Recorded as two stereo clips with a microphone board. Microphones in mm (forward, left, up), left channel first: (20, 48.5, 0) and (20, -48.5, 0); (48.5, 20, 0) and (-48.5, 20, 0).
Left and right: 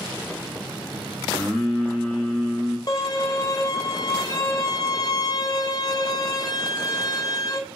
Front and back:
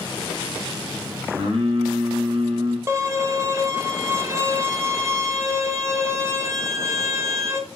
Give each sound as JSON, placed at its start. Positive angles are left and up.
{"t": 1.3, "sound": "singing", "azimuth_deg": 180, "distance_m": 0.8}
{"t": 2.9, "sound": "a violin", "azimuth_deg": 125, "distance_m": 0.5}